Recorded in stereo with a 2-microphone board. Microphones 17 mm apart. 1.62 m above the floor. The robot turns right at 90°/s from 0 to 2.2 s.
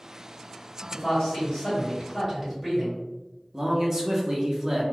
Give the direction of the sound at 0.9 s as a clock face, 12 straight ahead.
10 o'clock.